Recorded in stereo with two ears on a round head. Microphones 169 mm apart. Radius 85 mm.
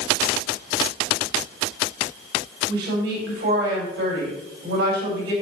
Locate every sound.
2.7 s a woman speaking: 60° right (ahead or behind), 4.5 m